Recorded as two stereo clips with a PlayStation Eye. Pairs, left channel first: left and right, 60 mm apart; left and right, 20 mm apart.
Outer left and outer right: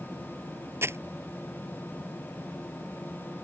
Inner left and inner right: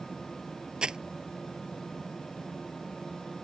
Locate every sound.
0.8 s crumpling: 40° right (ahead or behind)